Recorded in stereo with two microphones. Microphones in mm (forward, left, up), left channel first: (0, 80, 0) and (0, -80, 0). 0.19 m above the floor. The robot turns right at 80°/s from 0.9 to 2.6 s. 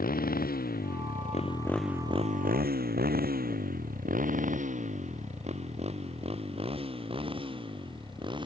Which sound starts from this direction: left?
A motorcycle, at 0.0 s.